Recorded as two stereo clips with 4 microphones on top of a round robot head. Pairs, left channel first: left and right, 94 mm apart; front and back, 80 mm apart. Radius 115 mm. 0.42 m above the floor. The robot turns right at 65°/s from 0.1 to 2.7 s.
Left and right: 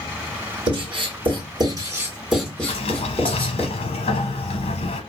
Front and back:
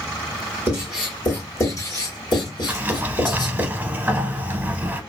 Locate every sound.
0.7 s writing: 115° right, 2.5 m; by 3.7 s 15° left, 2.5 m
2.7 s a sliding door: 105° left, 0.7 m; by 5.0 s 110° left, 0.7 m